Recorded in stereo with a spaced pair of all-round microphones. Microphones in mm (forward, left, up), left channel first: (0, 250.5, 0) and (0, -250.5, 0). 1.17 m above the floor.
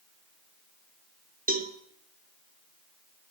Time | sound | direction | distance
1.5 | a cowbell | 15° right (ahead or behind) | 0.8 m